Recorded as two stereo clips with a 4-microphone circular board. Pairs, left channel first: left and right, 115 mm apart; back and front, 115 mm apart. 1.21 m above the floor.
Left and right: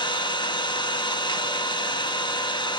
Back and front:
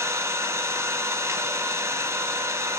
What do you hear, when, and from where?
0.0 s an engine running: 55° left, 0.7 m